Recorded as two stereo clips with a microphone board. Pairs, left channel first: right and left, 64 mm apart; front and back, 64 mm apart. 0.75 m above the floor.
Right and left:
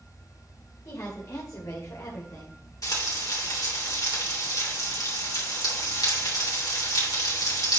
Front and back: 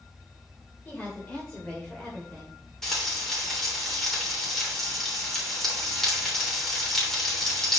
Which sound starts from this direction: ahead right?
A woman speaking, at 0.8 s.